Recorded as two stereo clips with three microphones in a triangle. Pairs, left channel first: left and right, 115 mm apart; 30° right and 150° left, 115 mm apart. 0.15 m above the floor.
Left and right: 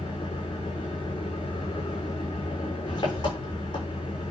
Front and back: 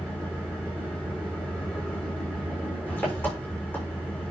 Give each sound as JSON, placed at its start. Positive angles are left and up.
{"t": 0.0, "sound": "an engine running", "azimuth_deg": 45, "distance_m": 6.5}